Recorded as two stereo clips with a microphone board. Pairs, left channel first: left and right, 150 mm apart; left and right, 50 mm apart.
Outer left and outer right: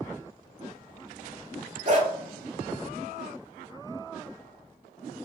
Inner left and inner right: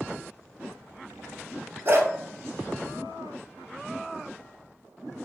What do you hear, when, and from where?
1.9 s a dog barking: 50° right (ahead or behind), 0.9 m